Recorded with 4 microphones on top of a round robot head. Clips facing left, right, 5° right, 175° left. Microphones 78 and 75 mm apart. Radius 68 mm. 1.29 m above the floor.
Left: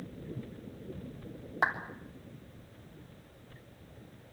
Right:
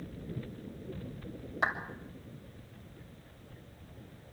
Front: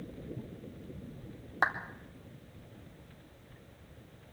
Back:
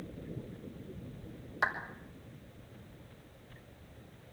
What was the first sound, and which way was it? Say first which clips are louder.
A clap: left 2 dB, front 2 dB; 40° left.